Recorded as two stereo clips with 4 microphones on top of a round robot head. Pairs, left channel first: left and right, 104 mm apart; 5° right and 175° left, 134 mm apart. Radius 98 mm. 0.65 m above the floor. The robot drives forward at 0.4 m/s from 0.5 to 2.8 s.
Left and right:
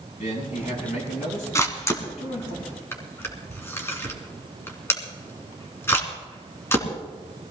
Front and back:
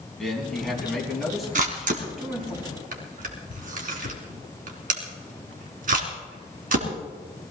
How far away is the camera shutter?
About 2.5 m.